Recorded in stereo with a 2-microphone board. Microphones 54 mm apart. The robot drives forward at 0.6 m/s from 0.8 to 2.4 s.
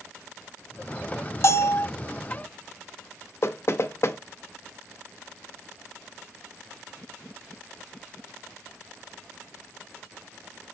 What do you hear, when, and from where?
1.4 s a bell: 55° left (ahead or behind), 0.6 m; by 1.9 s 50° left (ahead or behind), 0.7 m
3.4 s knocking: 50° left (ahead or behind), 0.6 m